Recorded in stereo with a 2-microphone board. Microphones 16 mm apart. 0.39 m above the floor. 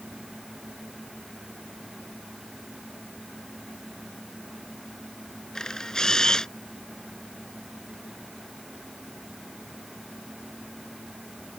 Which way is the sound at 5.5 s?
35° left (ahead or behind).